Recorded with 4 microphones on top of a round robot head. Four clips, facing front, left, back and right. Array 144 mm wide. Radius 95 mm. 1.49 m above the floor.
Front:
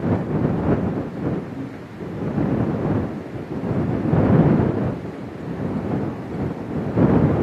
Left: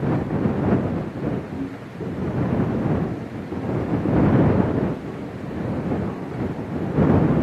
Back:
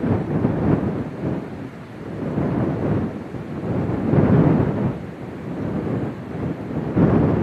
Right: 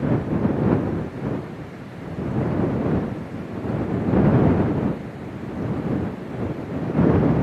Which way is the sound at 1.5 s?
75° left.